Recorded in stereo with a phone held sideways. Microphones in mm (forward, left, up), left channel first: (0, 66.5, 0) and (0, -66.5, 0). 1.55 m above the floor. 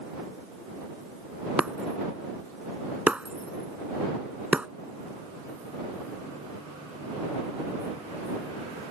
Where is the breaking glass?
10° right (ahead or behind).